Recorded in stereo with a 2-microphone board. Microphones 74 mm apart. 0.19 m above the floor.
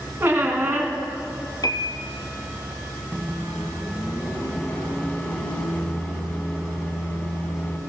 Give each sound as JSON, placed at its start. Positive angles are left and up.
{"t": 0.2, "sound": "a squeak", "side_deg": -30, "distance_m": 1.5}
{"t": 1.6, "sound": "a piano", "side_deg": 60, "distance_m": 0.8}
{"t": 3.1, "sound": "a microwave", "side_deg": 15, "distance_m": 1.0}